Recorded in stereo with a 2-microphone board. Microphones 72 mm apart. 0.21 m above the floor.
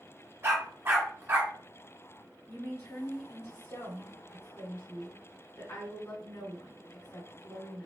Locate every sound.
0.4 s a dog barking: 35° right (ahead or behind), 1.0 m
2.5 s a woman speaking: 45° left (ahead or behind), 2.0 m